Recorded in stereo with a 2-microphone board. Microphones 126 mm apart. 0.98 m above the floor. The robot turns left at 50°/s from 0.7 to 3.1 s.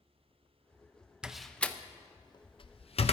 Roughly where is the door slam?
Centre.